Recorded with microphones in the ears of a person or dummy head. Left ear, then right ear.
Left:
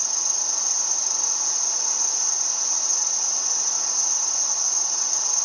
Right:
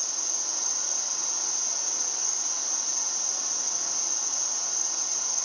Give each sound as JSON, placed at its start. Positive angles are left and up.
{"t": 0.0, "sound": "an insect", "side_deg": 15, "distance_m": 1.2}